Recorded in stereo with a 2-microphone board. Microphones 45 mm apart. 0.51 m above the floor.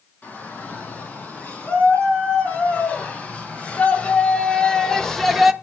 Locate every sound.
0.2 s a shout: 40° left (ahead or behind), 5.5 m; by 5.5 s 5° right (ahead or behind), 1.0 m